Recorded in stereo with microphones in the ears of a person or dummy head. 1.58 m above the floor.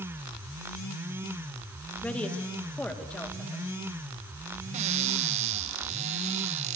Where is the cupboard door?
45° right (ahead or behind), 1.3 m.